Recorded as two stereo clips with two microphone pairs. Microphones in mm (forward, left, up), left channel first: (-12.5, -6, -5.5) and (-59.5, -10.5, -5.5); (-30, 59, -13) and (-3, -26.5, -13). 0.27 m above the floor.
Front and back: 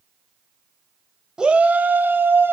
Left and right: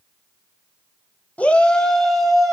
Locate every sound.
1.4 s a shout: 150° left, 1.0 m; by 2.5 s 165° right, 1.7 m